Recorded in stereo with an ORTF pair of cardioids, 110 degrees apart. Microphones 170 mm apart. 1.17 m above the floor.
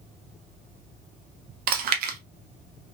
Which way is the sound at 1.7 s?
65° right.